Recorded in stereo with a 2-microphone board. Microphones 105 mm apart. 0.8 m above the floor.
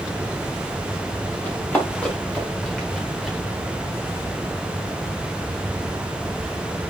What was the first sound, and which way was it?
Running footsteps, 15° left (ahead or behind).